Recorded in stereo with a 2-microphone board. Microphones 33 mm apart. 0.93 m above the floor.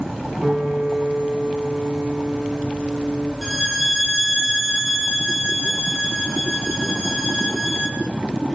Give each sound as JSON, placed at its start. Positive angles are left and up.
{"t": 0.4, "sound": "a piano", "side_deg": -15, "distance_m": 8.0}
{"t": 3.4, "sound": "a violin", "side_deg": 10, "distance_m": 6.5}